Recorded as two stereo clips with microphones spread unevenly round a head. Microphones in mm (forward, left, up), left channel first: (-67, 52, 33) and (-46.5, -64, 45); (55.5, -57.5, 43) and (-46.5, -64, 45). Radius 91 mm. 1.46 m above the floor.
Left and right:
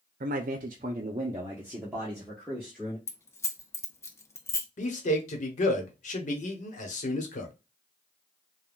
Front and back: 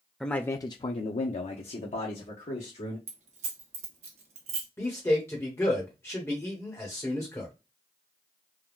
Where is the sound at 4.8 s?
75° left, 1.0 m.